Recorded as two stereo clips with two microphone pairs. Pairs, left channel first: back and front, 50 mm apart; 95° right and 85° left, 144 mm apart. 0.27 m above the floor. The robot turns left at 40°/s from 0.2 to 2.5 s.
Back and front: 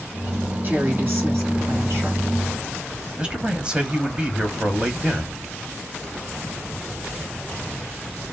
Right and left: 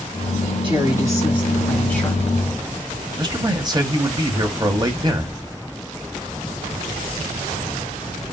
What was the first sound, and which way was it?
A woman speaking, 40° left.